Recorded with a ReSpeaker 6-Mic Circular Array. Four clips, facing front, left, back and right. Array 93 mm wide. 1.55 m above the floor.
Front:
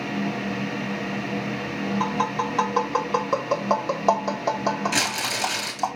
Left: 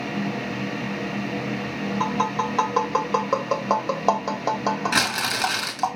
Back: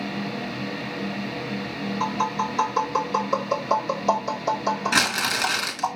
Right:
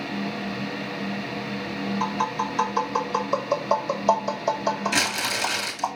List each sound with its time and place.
2.0 s tapping: 65° left, 2.5 m
4.9 s crumpling: 140° left, 2.5 m